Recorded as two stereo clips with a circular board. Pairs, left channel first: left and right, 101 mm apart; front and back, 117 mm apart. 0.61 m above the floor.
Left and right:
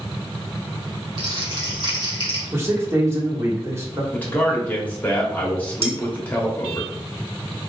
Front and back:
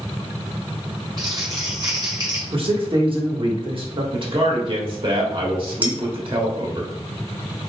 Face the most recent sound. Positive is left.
turn(degrees=-105)